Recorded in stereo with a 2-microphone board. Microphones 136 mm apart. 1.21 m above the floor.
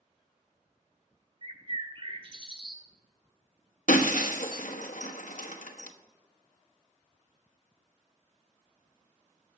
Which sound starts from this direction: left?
Breaking glass, at 3.9 s.